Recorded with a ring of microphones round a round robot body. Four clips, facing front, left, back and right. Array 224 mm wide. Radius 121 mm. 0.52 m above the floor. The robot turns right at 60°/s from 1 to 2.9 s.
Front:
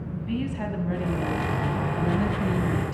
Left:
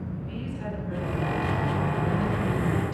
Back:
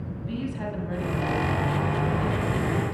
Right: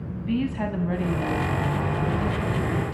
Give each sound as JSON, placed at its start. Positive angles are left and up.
{"t": 0.2, "sound": "a woman speaking", "azimuth_deg": -75, "distance_m": 5.5}